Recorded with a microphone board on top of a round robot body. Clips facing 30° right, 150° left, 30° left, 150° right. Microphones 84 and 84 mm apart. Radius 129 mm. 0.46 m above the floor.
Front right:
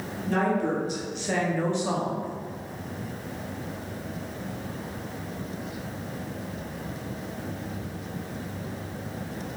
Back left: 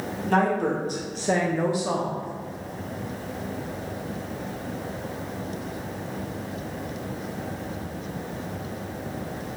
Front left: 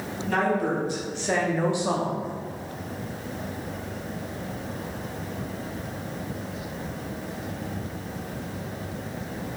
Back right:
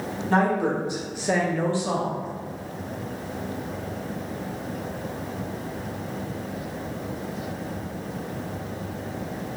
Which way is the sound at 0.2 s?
155° left.